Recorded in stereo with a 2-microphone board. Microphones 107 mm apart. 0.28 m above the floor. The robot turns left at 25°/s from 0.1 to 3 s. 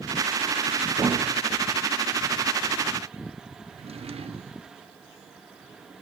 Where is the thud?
40° right (ahead or behind), 6.5 m; by 1.6 s 55° right (ahead or behind), 6.5 m.